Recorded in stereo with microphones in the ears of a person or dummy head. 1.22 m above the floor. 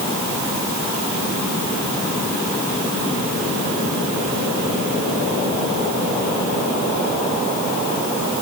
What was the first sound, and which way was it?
Only background noise.